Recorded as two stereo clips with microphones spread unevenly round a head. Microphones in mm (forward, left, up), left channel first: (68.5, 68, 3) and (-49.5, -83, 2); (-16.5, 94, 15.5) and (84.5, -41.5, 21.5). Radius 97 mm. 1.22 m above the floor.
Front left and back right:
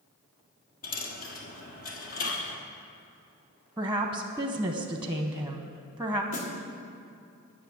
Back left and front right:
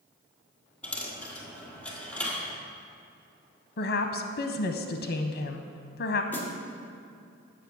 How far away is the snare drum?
About 1.7 m.